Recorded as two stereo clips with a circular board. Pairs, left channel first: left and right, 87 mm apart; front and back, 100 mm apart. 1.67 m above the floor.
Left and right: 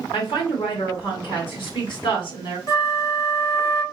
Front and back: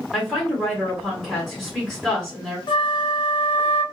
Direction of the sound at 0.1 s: 90° left.